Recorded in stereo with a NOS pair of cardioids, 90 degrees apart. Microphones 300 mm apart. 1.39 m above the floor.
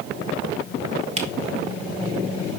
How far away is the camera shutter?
About 2 m.